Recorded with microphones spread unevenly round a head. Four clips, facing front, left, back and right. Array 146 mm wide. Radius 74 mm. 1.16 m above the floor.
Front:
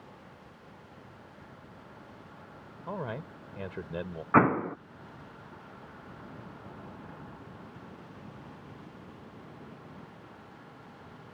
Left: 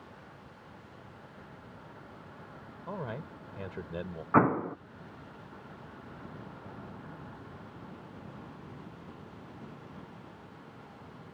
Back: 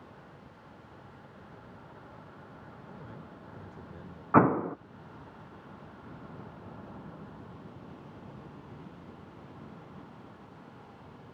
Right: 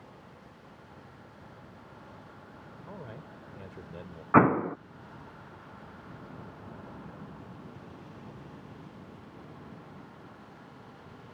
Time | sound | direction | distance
2.9 | a man speaking | 25° left | ?
4.3 | an explosion | 140° right | ?